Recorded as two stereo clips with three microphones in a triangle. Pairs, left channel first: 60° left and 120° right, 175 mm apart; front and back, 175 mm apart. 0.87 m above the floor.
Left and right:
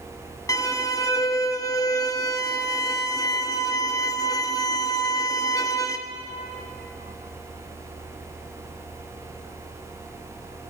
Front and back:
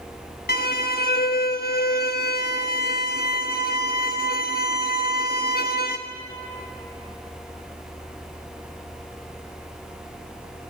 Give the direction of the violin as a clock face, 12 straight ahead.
12 o'clock.